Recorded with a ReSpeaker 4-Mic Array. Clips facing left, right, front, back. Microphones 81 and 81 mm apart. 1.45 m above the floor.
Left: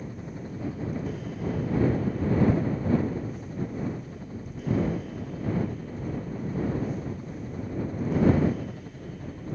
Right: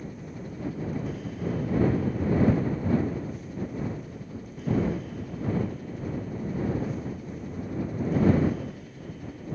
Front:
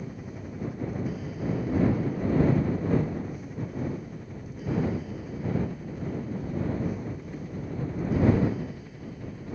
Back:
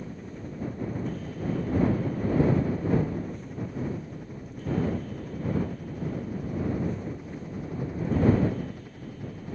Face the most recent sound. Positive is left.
turn(degrees=115)